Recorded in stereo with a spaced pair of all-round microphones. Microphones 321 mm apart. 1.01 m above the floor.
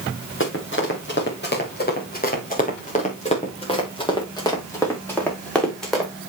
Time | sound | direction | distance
0.4 | running footsteps | 40° left (ahead or behind) | 5.5 m